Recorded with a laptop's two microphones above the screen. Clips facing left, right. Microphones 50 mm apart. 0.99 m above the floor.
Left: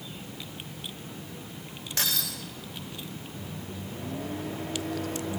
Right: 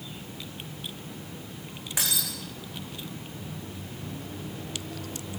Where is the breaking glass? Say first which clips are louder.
Even; 15° right (ahead or behind), 8.5 m.